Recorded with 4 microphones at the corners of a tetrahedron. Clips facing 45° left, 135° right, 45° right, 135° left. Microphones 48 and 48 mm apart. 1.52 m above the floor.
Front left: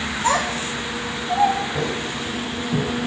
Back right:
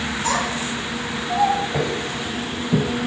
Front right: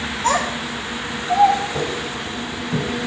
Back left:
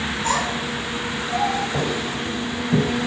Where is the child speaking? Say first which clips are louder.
Front left 3 dB, front right 4 dB; 10° right, 1.7 m; by 1.6 s 55° right, 1.1 m.